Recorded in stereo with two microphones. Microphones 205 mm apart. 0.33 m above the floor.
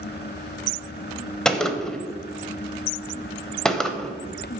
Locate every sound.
1.4 s a gunshot: 5° left (ahead or behind), 0.7 m